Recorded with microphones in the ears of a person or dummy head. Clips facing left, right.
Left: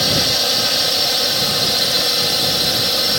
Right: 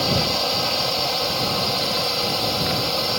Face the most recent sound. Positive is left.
turn(degrees=15)  # may be behind; listen again after turning